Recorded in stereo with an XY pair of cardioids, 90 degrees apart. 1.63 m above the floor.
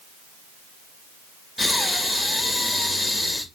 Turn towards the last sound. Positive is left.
turn(degrees=15)